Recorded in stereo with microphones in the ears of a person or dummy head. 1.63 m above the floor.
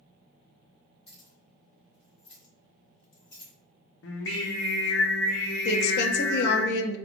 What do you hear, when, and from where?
1.1 s keys jangling: 25° left (ahead or behind), 1.4 m; by 3.5 s 45° left (ahead or behind), 3 m
4.0 s singing: 75° left (ahead or behind), 0.7 m
5.7 s a woman speaking: 60° left (ahead or behind), 0.7 m